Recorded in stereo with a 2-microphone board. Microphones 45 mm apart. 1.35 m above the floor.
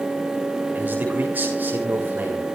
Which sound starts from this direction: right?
A man speaking, at 0.8 s.